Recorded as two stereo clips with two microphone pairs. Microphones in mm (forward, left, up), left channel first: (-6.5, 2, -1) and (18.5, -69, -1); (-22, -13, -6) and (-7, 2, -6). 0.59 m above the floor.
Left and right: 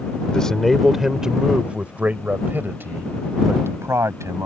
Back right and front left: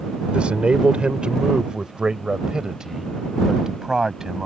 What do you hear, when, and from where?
0.3 s a man speaking: 30° left; by 4.5 s 20° right